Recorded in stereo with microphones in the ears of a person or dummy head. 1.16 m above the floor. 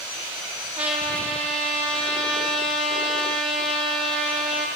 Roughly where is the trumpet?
Right.